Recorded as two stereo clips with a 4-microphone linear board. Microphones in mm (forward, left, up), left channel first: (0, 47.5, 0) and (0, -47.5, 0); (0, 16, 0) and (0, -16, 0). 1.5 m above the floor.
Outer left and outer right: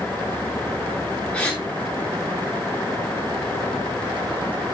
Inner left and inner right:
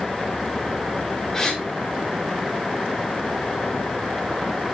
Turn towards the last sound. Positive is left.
turn(degrees=10)  # may be behind; listen again after turning